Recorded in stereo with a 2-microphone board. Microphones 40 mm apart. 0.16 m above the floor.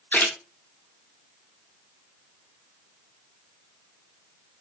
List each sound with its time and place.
0.1 s a splash: 55° left (ahead or behind), 2.0 m